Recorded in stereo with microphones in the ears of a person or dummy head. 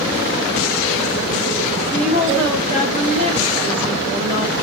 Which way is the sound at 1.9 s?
25° right (ahead or behind).